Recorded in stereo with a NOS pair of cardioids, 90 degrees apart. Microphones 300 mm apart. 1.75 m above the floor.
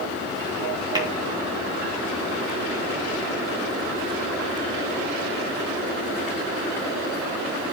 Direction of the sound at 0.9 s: 15° right.